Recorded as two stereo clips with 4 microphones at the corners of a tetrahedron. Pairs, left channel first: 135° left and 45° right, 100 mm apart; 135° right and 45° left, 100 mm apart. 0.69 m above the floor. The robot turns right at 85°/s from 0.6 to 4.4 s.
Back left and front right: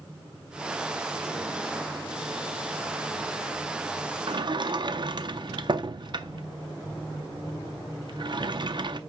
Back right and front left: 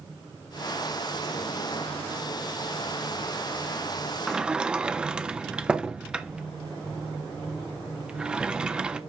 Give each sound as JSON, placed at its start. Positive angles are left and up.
{"t": 4.3, "sound": "a sliding door", "azimuth_deg": -45, "distance_m": 0.5}